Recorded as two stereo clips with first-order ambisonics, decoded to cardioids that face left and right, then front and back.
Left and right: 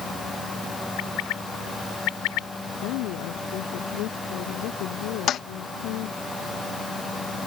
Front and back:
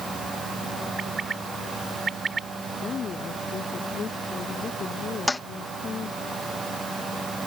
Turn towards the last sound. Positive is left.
turn(degrees=75)